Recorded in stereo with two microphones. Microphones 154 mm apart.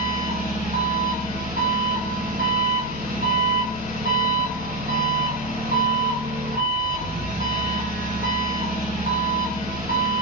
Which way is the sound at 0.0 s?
70° right (ahead or behind).